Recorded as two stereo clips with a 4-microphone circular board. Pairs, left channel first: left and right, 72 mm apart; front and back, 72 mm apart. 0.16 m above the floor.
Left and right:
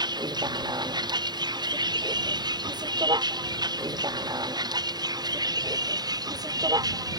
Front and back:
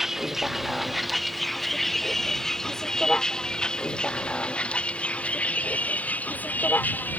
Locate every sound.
0.0 s a vehicle: 95° right; by 7.2 s 65° right